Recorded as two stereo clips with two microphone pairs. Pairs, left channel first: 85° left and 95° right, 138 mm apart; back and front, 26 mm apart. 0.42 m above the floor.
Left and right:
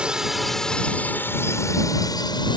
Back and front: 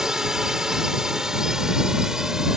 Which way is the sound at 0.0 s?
25° right.